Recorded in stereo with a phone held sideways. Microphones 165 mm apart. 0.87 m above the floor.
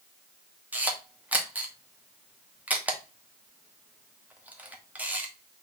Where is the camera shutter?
10° right (ahead or behind), 0.9 m.